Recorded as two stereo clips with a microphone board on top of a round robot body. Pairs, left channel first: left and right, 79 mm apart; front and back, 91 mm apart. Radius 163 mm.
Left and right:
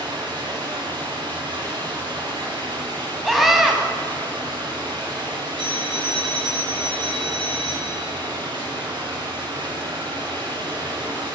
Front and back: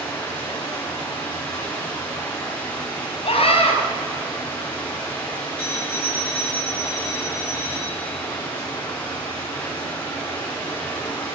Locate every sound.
0.0 s running water: 70° right, 6.5 m
3.2 s a scream: 5° right, 5 m
5.6 s a phone ringing: 75° right, 7 m